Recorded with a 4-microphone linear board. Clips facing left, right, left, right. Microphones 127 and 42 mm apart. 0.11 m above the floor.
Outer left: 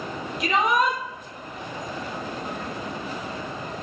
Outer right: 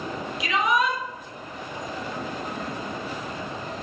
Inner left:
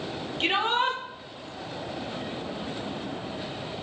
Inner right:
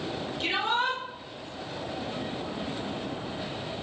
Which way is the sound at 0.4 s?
50° left (ahead or behind).